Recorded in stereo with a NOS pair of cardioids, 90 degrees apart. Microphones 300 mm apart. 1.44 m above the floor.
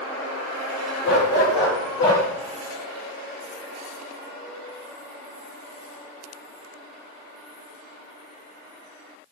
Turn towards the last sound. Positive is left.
turn(degrees=70)